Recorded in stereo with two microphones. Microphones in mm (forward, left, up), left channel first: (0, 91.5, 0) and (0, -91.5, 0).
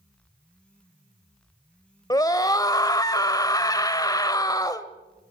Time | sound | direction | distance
2.1 | a scream | 20° left (ahead or behind) | 1.0 m